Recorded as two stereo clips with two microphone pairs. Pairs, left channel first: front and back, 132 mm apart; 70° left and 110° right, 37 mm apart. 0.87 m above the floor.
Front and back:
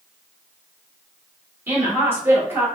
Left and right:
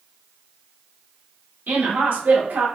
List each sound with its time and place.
1.7 s a woman speaking: 105° right, 1.9 m